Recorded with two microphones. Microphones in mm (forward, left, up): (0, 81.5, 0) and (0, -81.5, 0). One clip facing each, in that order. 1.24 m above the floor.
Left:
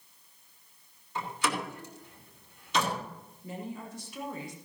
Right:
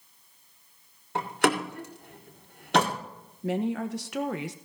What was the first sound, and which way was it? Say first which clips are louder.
A door slam: right 7 dB; 60° right (ahead or behind).